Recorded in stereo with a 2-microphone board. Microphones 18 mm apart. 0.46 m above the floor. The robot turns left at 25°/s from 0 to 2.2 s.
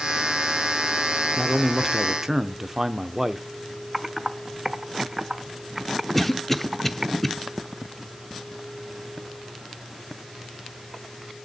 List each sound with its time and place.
1.4 s a man speaking: 15° right (ahead or behind), 0.7 m; by 3.5 s 20° right (ahead or behind), 0.7 m
3.9 s typing on a keyboard: 25° right (ahead or behind), 0.8 m
6.2 s a cough: 10° left (ahead or behind), 0.8 m